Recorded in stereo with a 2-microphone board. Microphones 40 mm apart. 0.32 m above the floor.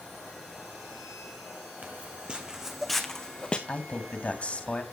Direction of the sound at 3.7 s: 35° left (ahead or behind).